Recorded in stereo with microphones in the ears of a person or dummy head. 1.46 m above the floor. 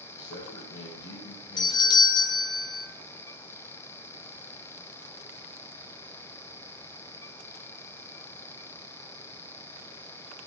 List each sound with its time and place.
0.1 s a man speaking: 70° left (ahead or behind), 3 m
1.6 s a doorbell: 20° left (ahead or behind), 0.8 m